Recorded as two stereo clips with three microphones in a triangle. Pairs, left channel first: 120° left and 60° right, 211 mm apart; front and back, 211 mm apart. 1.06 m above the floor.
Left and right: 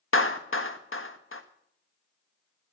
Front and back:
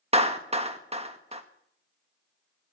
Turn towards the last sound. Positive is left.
turn(degrees=120)